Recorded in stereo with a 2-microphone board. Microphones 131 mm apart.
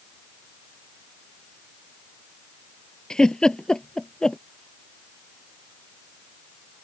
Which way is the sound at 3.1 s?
5° left (ahead or behind).